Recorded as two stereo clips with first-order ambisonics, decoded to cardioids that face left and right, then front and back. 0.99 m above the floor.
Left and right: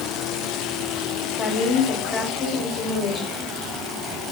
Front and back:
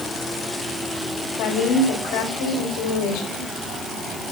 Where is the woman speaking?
25° left, 4.5 m.